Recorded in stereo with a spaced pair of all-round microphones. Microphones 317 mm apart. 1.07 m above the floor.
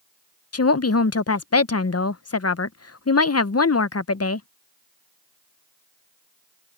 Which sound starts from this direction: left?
A woman speaking, at 0.5 s.